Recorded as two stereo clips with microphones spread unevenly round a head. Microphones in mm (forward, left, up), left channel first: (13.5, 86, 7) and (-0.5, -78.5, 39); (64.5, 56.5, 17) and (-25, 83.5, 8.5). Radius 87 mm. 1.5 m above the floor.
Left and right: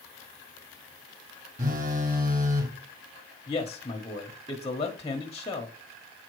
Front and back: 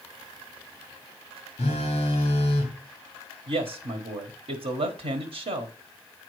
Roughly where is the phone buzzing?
Ahead right.